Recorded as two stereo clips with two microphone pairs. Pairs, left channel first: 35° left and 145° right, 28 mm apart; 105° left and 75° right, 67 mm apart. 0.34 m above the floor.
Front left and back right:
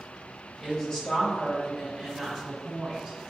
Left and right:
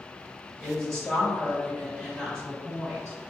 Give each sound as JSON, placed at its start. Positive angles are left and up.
{"t": 0.6, "sound": "a woman speaking", "azimuth_deg": 35, "distance_m": 1.4}